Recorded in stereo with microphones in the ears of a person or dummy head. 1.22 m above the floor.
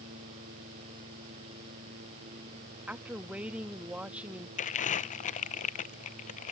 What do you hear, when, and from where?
2.9 s a woman speaking: 10° right (ahead or behind)
4.6 s crumpling: 35° left (ahead or behind)